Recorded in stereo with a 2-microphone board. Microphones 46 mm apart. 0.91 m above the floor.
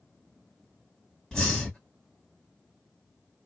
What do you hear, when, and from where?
1.3 s breathing: 15° left (ahead or behind), 1.6 m